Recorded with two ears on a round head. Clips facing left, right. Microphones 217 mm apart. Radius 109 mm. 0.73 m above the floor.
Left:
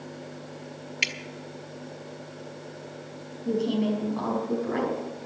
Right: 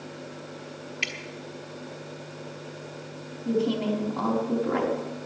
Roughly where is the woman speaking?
Centre.